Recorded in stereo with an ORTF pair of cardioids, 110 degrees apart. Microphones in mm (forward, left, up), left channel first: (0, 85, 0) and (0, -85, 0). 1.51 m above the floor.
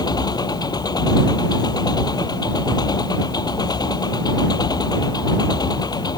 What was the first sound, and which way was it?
An engine running, 25° left.